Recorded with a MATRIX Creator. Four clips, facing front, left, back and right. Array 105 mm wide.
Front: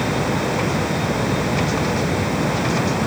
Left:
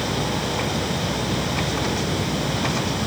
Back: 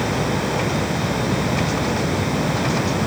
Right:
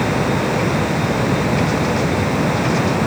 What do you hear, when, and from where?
Only background noise.